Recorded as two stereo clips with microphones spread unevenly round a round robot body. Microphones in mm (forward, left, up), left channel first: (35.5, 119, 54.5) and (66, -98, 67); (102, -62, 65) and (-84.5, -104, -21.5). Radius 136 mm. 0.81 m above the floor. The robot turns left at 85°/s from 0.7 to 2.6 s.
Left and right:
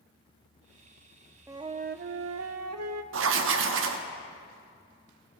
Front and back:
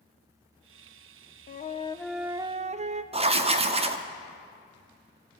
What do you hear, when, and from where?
1.5 s a flute: 5° right, 0.5 m; by 3.0 s 100° right, 0.5 m
3.1 s writing: 115° right, 1.0 m